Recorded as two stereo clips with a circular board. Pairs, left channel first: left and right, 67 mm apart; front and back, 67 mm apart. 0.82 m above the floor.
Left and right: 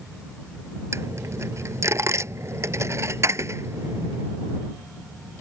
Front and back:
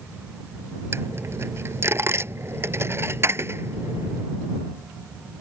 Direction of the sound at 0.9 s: 130° right.